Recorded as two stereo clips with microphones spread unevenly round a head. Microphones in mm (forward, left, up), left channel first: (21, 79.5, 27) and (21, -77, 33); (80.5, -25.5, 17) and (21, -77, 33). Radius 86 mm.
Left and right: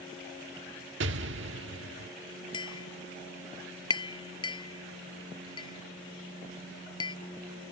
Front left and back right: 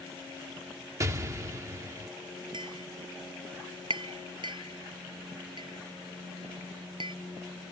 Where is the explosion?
100° right.